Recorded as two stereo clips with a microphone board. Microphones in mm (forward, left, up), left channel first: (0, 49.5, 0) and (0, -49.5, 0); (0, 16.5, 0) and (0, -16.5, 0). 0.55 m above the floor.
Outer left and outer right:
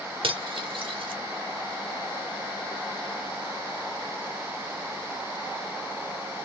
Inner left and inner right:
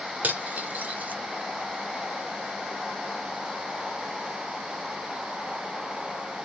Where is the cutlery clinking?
70° right (ahead or behind), 0.9 m.